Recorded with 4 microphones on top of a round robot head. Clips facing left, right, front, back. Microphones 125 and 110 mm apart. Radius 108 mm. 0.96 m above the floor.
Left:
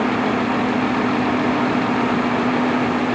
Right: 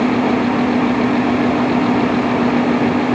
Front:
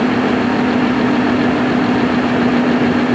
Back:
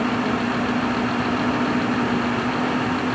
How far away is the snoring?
No snoring in this recording.